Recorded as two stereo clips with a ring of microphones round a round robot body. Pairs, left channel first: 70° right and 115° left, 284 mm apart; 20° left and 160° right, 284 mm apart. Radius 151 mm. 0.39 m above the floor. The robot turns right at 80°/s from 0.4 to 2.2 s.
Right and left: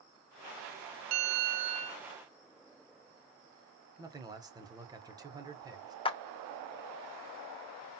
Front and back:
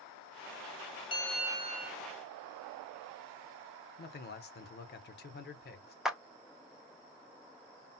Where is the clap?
70° right, 0.8 m.